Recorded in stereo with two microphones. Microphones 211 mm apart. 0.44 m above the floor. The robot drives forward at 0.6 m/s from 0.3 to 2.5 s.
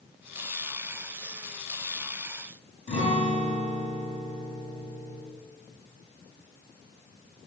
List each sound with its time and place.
2.9 s a guitar: 35° left (ahead or behind), 1.6 m